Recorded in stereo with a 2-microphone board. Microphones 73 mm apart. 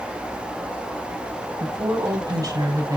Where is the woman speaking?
75° right (ahead or behind), 4 m; by 3.0 s 55° right (ahead or behind), 3.5 m.